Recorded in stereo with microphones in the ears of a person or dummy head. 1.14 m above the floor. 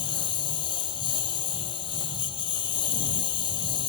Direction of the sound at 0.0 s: 30° left (ahead or behind).